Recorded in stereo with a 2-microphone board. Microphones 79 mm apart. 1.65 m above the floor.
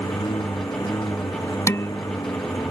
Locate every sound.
0.0 s a lawn mower: 60° left (ahead or behind); by 2.7 s 55° left (ahead or behind)
1.7 s dishes clattering: 40° left (ahead or behind)